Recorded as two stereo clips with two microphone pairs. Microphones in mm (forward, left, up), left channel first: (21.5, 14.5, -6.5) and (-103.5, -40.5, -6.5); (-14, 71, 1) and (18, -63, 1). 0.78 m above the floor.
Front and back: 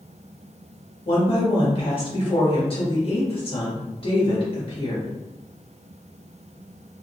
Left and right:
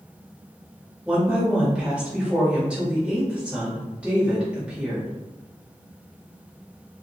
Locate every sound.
1.1 s a woman speaking: 5° left, 1.3 m